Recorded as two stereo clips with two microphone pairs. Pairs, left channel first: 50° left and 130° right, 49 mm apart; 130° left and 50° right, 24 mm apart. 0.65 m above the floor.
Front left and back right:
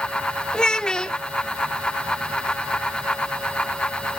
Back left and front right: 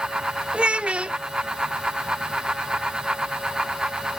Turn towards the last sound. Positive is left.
turn(degrees=-20)